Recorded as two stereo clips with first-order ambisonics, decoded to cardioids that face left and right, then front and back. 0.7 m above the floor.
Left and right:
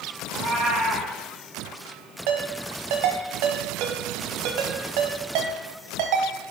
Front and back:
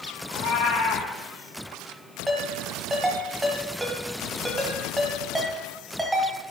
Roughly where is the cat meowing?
Ahead right.